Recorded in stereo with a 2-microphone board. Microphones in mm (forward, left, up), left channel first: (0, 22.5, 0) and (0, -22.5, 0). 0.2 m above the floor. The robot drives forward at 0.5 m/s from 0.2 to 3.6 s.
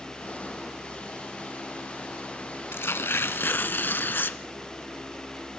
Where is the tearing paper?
65° left (ahead or behind), 0.7 m; by 4.4 s 50° left (ahead or behind), 0.8 m.